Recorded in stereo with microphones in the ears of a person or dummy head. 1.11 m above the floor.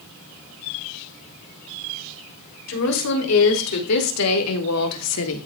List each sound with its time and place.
2.7 s a woman speaking: 80° left, 3 m; by 5.5 s 75° left (ahead or behind), 1.5 m